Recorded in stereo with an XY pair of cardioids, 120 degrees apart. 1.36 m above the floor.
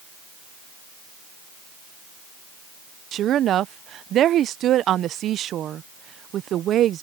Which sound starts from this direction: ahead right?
A woman speaking, at 3.1 s.